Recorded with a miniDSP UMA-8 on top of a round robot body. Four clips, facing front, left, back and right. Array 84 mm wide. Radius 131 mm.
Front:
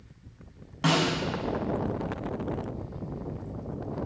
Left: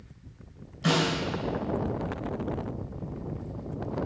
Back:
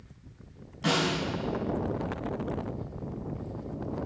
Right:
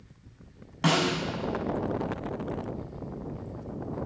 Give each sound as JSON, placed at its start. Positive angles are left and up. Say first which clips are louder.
{"t": 0.8, "sound": "a snare drum", "louder": "right 1 dB, front 2 dB", "azimuth_deg": -60, "distance_m": 5.5}